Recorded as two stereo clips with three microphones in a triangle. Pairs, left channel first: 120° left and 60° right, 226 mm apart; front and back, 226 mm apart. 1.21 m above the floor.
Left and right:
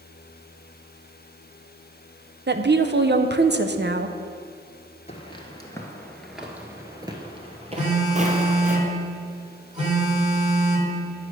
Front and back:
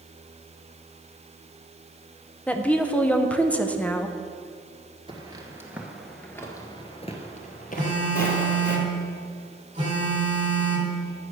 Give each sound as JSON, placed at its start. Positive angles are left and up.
{"t": 2.5, "sound": "a woman speaking", "azimuth_deg": -80, "distance_m": 0.6}
{"t": 5.1, "sound": "footsteps", "azimuth_deg": 140, "distance_m": 1.3}
{"t": 7.8, "sound": "a phone buzzing", "azimuth_deg": -120, "distance_m": 2.0}